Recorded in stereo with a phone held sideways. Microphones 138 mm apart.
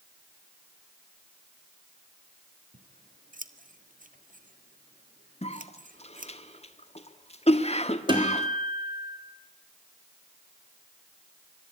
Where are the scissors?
80° right, 1.3 m.